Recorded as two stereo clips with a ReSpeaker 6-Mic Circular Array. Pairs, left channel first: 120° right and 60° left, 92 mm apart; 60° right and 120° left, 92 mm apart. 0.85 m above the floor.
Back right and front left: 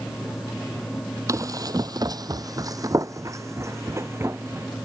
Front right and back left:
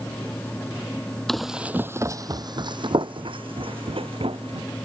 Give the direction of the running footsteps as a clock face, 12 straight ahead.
11 o'clock.